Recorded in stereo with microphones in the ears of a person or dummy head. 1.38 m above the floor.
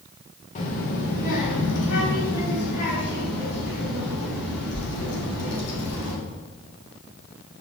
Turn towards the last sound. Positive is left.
turn(degrees=60)  # may be behind; listen again after turning